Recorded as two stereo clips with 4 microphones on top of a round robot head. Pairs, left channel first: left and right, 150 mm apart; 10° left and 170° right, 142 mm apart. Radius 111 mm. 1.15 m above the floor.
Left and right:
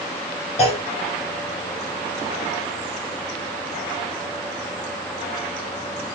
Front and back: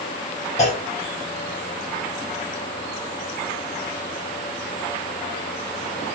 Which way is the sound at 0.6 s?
45° left.